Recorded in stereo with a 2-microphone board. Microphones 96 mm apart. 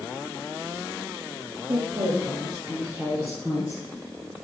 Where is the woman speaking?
50° right (ahead or behind), 3 m; by 3.8 s 20° right (ahead or behind), 3 m.